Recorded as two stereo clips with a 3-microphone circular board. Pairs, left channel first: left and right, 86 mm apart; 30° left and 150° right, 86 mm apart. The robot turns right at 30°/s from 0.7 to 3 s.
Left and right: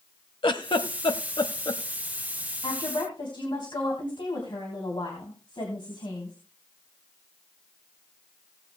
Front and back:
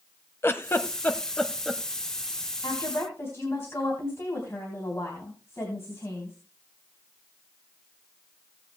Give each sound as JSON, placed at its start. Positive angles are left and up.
{"t": 0.4, "sound": "a giggle", "azimuth_deg": 90, "distance_m": 0.9}
{"t": 2.6, "sound": "a woman speaking", "azimuth_deg": 75, "distance_m": 3.5}